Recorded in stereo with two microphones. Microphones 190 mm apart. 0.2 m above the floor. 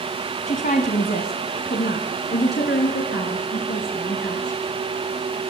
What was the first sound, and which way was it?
A woman speaking, 40° left (ahead or behind).